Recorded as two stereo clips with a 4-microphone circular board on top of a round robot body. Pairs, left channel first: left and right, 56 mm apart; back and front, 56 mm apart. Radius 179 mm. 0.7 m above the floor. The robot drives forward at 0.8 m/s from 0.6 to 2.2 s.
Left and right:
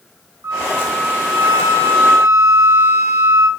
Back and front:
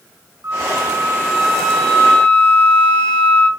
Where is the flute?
50° right, 1.2 m; by 3.5 s 120° right, 1.0 m.